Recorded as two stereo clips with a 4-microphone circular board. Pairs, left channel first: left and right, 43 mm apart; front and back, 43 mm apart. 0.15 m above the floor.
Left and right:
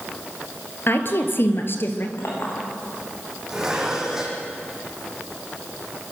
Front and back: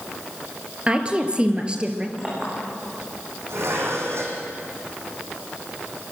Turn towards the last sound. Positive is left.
turn(degrees=-170)